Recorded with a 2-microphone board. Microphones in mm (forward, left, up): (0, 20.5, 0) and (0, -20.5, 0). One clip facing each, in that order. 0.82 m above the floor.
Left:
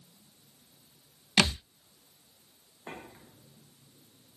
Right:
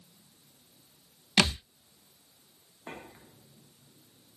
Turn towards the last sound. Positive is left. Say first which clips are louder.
# even
turn(degrees=-5)  # may be behind; listen again after turning